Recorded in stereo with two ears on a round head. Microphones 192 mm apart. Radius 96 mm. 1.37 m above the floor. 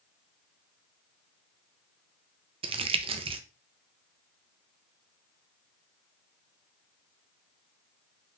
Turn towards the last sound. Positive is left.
turn(degrees=-25)  # may be behind; listen again after turning